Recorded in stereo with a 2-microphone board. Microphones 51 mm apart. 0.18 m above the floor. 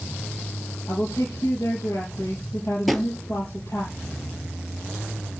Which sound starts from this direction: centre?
A drawer, at 2.9 s.